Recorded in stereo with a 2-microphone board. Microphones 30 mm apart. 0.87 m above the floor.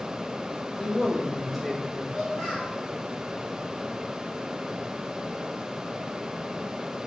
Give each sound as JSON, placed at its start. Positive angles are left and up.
{"t": 0.8, "sound": "a man speaking", "side_deg": 25, "distance_m": 1.5}
{"t": 2.1, "sound": "a child speaking", "side_deg": 15, "distance_m": 1.3}